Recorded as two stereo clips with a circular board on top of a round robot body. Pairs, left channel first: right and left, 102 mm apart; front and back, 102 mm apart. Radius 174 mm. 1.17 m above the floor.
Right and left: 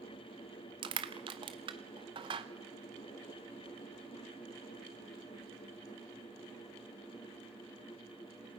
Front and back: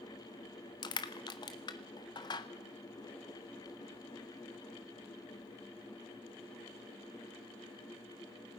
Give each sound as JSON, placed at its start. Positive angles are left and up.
{"t": 0.8, "sound": "crushing", "azimuth_deg": 50, "distance_m": 0.7}